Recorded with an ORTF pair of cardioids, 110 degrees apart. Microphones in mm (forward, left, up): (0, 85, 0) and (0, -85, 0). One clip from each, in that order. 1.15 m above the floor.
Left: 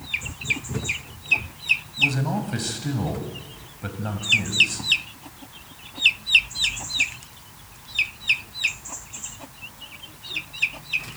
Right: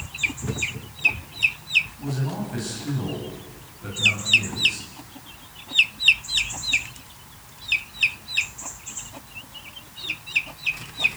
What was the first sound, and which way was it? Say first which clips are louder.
A man speaking: left 10 dB; 50° left.